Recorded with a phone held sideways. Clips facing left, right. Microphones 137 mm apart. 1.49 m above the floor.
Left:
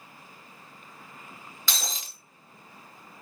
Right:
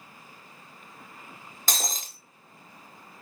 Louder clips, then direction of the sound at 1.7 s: Right 3 dB; 45° right (ahead or behind).